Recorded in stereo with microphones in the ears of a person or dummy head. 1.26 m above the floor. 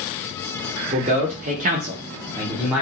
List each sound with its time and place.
0.9 s a man speaking: 30° right (ahead or behind), 0.8 m; by 2.8 s 10° right (ahead or behind), 0.8 m